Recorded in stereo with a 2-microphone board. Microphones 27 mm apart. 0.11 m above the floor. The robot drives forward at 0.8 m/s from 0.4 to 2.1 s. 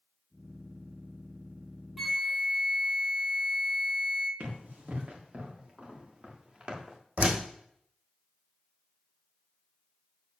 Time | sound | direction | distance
2.0 | a flute | 5° left (ahead or behind) | 0.8 m
4.4 | running footsteps | 65° right (ahead or behind) | 5 m
7.2 | a door slam | 65° right (ahead or behind) | 3 m